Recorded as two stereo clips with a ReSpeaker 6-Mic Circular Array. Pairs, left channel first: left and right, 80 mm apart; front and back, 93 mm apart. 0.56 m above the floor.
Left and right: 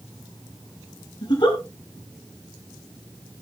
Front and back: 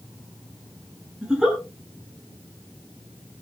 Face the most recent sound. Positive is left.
turn(degrees=100)